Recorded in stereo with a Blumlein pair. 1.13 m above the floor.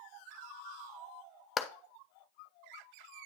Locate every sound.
1.6 s a clap: 20° left, 0.8 m